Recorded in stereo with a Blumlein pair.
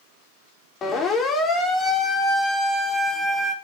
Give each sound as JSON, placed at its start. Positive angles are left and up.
{"t": 0.8, "sound": "a siren", "azimuth_deg": 25, "distance_m": 4.5}